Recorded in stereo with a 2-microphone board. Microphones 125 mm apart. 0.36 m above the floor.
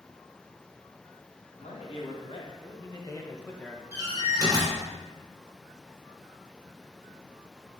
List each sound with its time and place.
1.5 s a man speaking: 55° left (ahead or behind), 2.5 m; by 3.8 s 5° left (ahead or behind), 1.4 m
3.9 s a door slam: 30° right (ahead or behind), 3.5 m